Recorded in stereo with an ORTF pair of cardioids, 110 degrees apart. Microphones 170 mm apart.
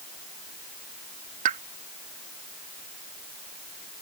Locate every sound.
1.4 s a pop: 50° right